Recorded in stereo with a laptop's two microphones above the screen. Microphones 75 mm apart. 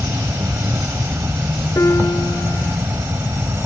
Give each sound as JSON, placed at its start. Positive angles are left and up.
{"t": 0.0, "sound": "an insect", "side_deg": -40}
{"t": 1.8, "sound": "a piano", "side_deg": 40}